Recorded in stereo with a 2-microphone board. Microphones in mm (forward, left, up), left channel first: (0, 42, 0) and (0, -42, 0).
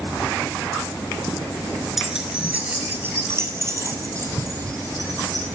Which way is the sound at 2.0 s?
5° right (ahead or behind).